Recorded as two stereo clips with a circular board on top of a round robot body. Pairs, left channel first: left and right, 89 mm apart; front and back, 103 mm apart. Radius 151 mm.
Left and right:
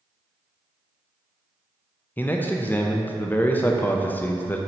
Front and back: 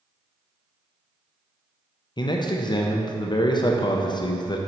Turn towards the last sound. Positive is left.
turn(degrees=25)